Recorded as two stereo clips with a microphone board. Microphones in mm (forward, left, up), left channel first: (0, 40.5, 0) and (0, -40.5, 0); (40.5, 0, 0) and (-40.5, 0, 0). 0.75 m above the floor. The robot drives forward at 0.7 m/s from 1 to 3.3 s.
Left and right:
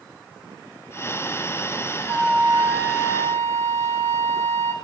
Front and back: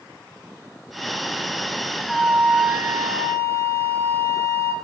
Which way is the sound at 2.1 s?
80° right.